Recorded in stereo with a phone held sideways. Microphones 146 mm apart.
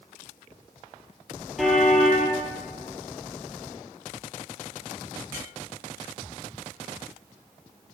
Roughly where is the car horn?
Centre.